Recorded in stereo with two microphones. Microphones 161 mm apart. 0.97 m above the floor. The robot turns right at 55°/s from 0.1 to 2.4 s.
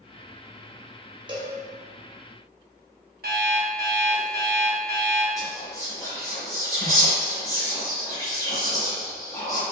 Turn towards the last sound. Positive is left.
turn(degrees=20)  # may be behind; listen again after turning